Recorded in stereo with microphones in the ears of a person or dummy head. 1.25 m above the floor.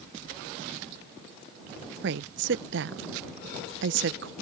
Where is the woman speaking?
65° right (ahead or behind).